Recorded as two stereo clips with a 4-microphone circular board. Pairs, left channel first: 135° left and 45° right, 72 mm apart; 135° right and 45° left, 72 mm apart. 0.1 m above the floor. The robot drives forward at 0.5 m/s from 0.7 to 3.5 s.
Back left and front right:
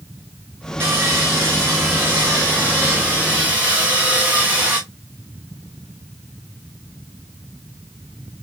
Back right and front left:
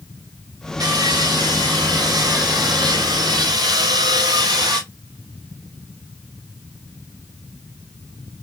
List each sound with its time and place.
0.8 s sawing: 15° left, 3.5 m; by 4.8 s 25° left, 2 m